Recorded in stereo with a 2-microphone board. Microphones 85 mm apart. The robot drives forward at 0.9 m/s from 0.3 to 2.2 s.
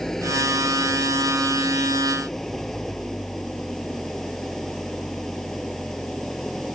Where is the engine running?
5° left (ahead or behind).